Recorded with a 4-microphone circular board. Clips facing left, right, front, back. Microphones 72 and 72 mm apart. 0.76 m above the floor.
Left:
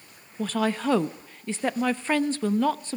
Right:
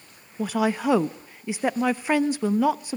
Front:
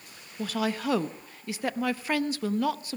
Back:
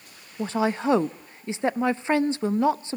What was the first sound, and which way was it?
A woman speaking, 155° right.